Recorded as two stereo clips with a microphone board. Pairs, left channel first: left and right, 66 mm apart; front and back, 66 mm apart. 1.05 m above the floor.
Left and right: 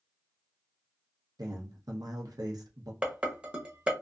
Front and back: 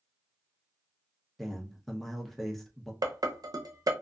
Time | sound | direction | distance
1.4 | a man speaking | 85° right | 0.8 m
3.0 | dishes clattering | 160° right | 0.6 m